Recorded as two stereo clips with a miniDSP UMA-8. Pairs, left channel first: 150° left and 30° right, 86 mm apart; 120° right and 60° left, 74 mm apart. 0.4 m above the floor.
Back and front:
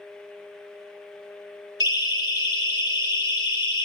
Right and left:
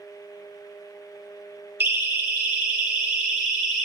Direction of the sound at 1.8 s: 120° left.